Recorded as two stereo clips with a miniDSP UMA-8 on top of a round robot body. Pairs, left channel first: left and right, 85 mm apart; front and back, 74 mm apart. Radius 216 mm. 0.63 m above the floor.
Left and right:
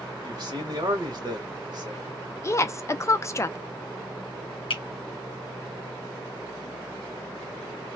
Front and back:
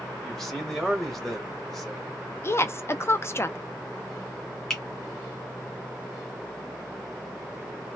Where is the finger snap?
85° left, 1.1 m.